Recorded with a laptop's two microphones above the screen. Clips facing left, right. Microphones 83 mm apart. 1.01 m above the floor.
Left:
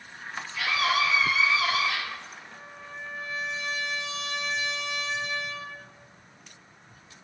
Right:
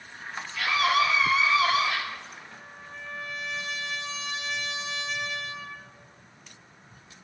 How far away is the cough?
No cough in this recording.